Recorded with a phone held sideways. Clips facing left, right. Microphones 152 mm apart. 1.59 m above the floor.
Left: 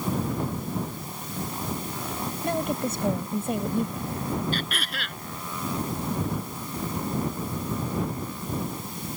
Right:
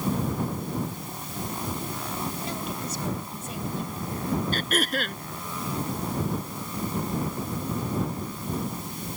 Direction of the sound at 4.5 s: 40° right (ahead or behind).